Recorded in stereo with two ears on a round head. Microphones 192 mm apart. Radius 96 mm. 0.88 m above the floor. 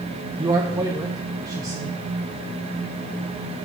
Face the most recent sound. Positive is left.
turn(degrees=-20)  # may be behind; listen again after turning